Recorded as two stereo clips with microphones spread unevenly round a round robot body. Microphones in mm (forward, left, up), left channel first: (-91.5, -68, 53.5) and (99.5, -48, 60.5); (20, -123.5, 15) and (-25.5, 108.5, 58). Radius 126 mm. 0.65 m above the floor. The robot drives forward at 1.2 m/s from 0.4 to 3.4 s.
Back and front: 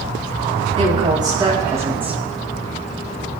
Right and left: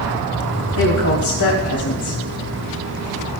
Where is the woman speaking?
55° right, 4.5 m; by 2.2 s 80° right, 3.5 m.